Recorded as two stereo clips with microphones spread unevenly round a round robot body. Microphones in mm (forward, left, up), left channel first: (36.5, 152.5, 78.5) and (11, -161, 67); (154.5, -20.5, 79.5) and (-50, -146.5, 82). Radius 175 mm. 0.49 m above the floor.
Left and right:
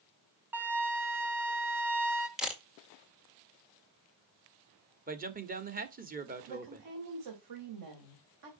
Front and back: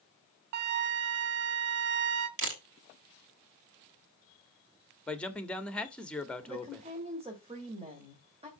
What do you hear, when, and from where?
0.5 s a flute: straight behind, 0.6 m
2.4 s a camera shutter: straight behind, 2 m
5.1 s a man speaking: 50° right, 1.6 m
6.5 s a woman speaking: 80° right, 2.5 m